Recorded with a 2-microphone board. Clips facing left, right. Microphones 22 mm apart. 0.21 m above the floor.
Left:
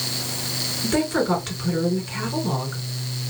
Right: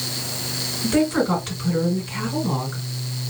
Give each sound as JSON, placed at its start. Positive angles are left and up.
{"t": 0.8, "sound": "a woman speaking", "side_deg": 5, "distance_m": 2.0}